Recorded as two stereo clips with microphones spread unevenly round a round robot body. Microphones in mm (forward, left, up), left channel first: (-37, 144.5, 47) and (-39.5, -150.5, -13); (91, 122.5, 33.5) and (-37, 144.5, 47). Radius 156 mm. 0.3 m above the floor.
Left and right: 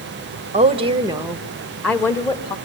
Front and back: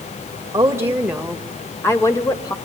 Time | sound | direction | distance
0.5 | a woman speaking | 130° right | 1.8 m